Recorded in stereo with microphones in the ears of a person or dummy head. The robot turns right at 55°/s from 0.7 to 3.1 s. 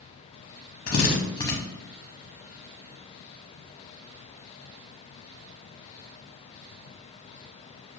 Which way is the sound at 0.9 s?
50° left (ahead or behind).